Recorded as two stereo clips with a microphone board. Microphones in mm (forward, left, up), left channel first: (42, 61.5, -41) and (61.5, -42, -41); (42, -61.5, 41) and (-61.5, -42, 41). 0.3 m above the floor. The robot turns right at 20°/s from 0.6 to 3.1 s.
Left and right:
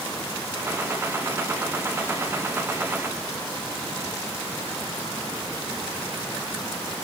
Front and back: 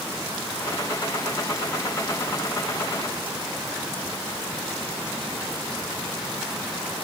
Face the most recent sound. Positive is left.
No sound to turn to.